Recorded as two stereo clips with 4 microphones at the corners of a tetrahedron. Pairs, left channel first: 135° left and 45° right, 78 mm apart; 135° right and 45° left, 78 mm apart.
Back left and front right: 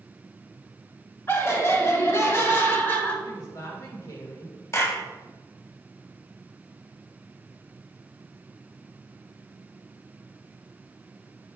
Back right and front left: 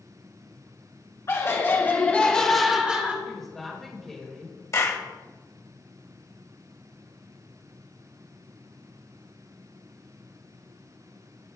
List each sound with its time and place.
1.3 s laughter: 175° right, 2.5 m; by 3.1 s 90° left, 1.7 m
3.2 s a woman speaking: 140° left, 2.0 m
4.7 s a clap: straight behind, 1.4 m